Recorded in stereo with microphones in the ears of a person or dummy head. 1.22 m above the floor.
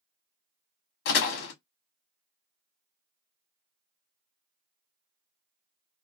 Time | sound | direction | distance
1.1 | a door slam | 70° left (ahead or behind) | 1.1 m